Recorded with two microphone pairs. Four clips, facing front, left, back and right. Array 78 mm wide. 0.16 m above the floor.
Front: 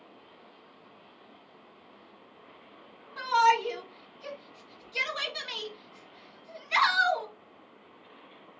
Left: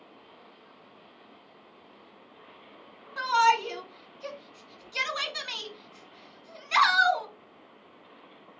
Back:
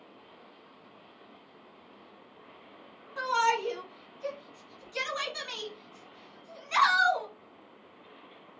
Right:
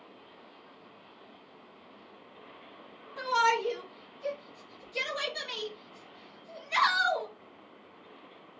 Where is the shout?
95° left, 1.5 m.